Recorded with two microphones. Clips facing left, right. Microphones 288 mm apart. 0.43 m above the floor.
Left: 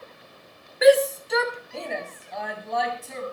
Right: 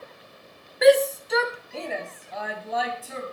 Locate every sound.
0.8 s a shout: centre (ahead or behind), 1.2 m; by 3.3 s 5° right (ahead or behind), 4 m